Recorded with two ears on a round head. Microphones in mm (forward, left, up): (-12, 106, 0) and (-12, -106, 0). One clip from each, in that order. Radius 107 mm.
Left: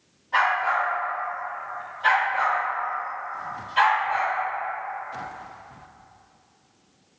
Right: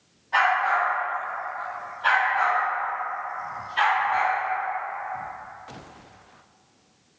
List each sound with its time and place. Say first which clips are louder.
0.3 s a dog barking: right 1 dB; centre (ahead or behind), 1.7 m; by 4.3 s 75° left (ahead or behind), 1.8 m